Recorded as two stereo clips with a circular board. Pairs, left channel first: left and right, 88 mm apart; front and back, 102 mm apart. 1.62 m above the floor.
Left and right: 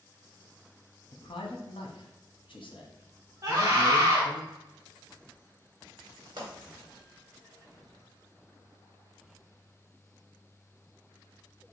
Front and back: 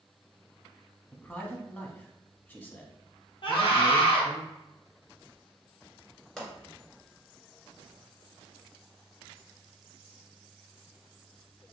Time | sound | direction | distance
1.1 | a man speaking | 75° left | 0.7 m
3.4 | a scream | 35° right | 1.2 m
6.4 | a pop | 85° right | 1.4 m